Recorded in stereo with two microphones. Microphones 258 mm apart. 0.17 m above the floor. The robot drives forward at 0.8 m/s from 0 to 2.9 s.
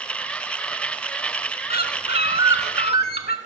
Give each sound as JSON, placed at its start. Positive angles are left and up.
{"t": 1.7, "sound": "a bird", "side_deg": 35, "distance_m": 1.1}